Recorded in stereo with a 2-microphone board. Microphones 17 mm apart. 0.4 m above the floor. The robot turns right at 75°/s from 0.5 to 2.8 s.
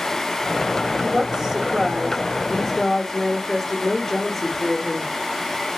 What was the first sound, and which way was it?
A woman speaking, 90° right.